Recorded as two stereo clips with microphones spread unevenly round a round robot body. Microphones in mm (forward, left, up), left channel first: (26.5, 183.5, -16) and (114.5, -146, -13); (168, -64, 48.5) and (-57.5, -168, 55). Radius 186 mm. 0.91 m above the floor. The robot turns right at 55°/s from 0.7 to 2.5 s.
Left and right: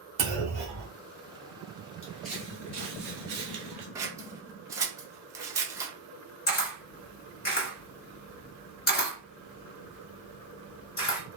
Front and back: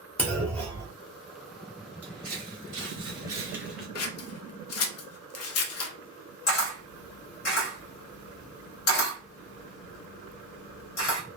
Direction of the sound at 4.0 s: 5° left.